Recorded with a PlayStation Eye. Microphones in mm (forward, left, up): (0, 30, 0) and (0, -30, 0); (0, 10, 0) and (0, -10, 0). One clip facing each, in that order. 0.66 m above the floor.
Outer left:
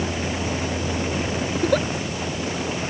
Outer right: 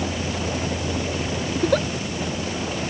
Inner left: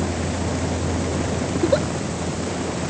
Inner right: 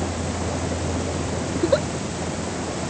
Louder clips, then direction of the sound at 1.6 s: Even, inner left 1 dB; centre (ahead or behind).